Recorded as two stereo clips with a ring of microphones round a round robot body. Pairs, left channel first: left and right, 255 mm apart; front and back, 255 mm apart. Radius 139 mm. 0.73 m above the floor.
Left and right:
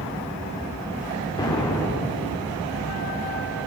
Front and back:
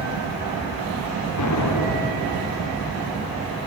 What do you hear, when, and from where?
1.4 s an explosion: 15° left, 2.5 m